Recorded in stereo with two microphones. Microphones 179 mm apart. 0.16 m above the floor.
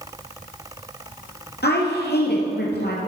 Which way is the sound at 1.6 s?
70° left (ahead or behind).